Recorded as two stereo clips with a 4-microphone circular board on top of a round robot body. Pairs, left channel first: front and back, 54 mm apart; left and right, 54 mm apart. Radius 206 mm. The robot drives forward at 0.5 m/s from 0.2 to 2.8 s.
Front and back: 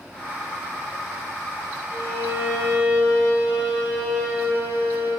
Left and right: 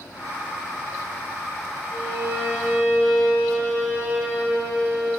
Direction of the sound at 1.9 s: 140° right.